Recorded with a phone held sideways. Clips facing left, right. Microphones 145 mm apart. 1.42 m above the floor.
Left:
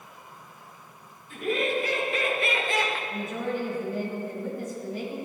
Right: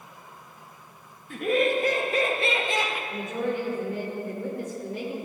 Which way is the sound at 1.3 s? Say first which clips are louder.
Right 4 dB; 60° right (ahead or behind).